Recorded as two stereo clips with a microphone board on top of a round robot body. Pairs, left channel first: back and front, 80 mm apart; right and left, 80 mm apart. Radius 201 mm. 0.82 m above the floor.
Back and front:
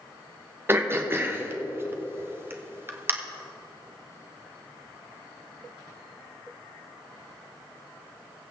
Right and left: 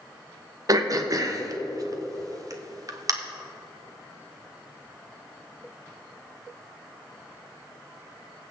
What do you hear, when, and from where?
0.7 s throat clearing: 55° left, 1.3 m